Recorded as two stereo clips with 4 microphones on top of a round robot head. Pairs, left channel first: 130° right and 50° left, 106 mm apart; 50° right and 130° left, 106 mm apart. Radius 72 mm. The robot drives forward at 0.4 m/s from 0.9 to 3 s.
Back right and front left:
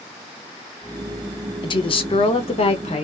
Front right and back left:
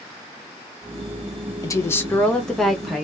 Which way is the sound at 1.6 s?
100° right.